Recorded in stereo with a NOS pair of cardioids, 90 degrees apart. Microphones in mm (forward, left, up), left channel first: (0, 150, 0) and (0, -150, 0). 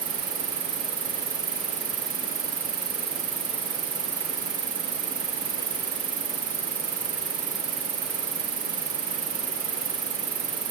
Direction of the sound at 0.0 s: 50° right.